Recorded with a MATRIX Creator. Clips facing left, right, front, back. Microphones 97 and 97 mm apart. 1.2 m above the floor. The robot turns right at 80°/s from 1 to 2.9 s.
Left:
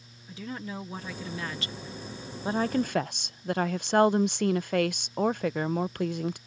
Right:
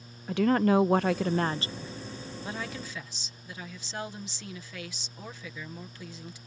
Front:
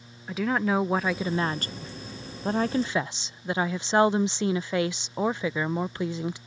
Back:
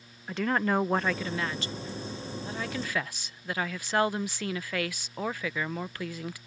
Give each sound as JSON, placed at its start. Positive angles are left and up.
{"t": 0.3, "sound": "a woman speaking", "azimuth_deg": -85}